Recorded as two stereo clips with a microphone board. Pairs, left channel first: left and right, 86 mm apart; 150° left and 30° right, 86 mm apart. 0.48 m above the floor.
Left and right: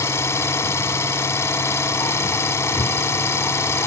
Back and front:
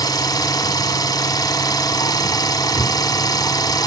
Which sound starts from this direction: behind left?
An engine running, at 0.0 s.